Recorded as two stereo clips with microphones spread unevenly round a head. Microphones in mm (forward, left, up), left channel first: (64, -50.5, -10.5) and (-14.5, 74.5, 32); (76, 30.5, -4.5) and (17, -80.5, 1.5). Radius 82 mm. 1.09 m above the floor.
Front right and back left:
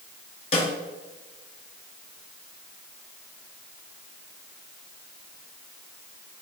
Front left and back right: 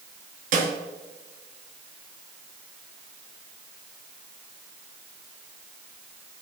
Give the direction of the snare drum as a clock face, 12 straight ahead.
4 o'clock.